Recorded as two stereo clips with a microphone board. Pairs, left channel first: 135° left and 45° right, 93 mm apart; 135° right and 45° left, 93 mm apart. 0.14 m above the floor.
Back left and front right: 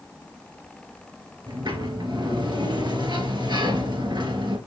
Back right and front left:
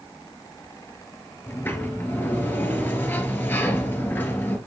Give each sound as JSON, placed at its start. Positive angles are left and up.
{"t": 1.5, "sound": "a sliding door", "azimuth_deg": -70, "distance_m": 1.4}